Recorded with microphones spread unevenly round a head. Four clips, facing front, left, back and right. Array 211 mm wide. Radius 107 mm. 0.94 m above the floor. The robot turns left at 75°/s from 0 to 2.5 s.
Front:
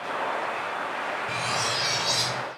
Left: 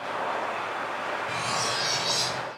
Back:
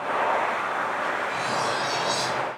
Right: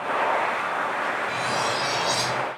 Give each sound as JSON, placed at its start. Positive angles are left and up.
{"t": 1.3, "sound": "cutlery clinking", "azimuth_deg": 25, "distance_m": 3.5}